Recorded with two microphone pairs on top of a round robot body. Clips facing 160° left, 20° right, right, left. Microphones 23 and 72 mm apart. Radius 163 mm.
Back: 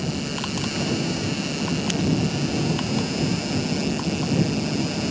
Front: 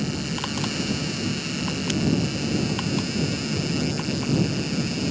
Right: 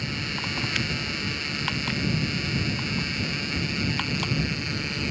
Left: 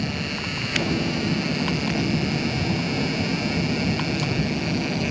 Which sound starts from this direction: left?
An engine running, at 0.0 s.